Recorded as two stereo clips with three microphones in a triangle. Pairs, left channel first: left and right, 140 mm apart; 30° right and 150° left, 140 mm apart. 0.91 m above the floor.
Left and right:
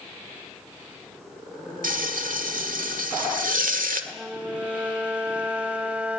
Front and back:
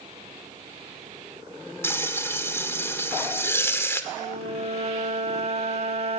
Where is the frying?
105° right, 1.7 m.